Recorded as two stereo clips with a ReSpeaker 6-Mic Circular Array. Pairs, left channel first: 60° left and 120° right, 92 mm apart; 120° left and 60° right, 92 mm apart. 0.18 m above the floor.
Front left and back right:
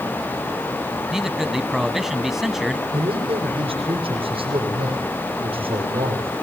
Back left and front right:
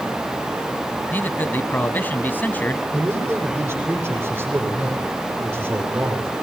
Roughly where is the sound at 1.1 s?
Behind.